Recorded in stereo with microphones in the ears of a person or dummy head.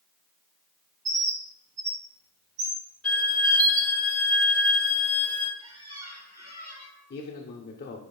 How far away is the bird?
About 1.1 m.